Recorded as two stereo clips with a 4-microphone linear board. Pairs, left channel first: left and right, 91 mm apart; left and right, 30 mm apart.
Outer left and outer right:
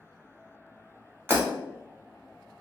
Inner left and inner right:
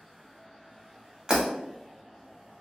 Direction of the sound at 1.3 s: 25° right (ahead or behind).